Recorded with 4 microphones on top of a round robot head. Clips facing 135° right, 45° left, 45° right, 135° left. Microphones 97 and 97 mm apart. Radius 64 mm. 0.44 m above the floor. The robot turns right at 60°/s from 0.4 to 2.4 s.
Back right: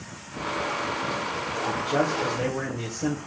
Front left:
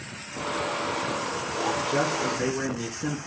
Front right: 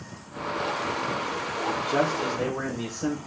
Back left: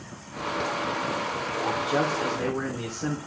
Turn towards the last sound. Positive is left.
turn(degrees=-130)